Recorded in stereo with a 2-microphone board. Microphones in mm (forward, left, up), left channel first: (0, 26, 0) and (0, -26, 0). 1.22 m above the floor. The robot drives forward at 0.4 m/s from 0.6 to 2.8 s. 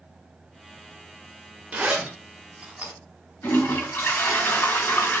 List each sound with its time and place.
1.7 s a zipper: 30° right (ahead or behind), 1.9 m; by 2.9 s 25° right (ahead or behind), 2 m
3.4 s a toilet flushing: 55° left (ahead or behind), 2.5 m